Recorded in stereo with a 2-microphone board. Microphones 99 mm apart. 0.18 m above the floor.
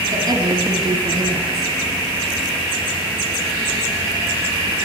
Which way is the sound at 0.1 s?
35° right (ahead or behind).